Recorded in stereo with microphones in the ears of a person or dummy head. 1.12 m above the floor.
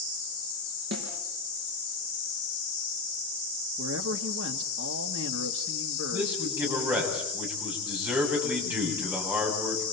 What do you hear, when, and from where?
0.9 s a snare drum: 60° right (ahead or behind), 5 m
3.8 s a man speaking: 75° right (ahead or behind), 2 m
6.1 s a man speaking: 15° right (ahead or behind), 9 m